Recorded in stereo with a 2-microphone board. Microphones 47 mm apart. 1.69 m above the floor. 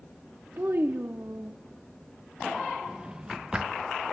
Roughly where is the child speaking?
Right.